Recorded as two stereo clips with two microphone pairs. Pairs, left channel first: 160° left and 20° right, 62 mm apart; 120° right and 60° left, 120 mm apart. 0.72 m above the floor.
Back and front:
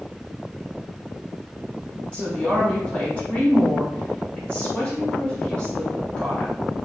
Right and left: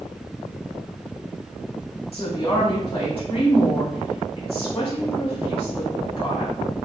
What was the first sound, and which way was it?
A woman speaking, 140° right.